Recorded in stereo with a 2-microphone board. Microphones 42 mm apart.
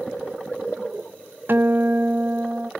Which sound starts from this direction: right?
A guitar, at 1.5 s.